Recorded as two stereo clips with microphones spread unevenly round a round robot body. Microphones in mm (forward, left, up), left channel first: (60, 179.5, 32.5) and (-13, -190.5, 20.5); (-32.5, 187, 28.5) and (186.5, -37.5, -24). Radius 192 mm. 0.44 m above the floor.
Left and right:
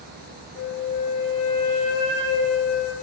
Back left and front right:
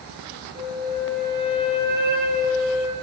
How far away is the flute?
About 5 m.